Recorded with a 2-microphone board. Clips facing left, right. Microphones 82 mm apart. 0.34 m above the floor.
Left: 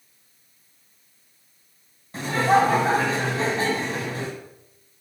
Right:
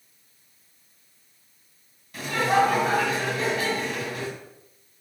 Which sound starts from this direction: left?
Laughter, at 2.1 s.